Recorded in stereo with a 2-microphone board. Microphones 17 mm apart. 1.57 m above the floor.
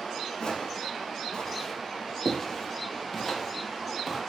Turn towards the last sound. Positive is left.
turn(degrees=-10)  # may be behind; listen again after turning